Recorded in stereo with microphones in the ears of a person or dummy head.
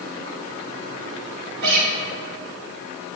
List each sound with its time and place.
1.6 s a guitar: 65° right (ahead or behind), 1.5 m